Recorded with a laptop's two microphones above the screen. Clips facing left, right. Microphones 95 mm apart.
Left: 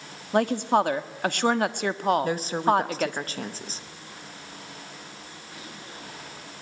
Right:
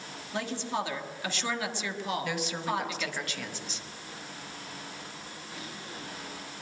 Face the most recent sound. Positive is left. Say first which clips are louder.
# left 9 dB
turn(degrees=40)  # may be behind; listen again after turning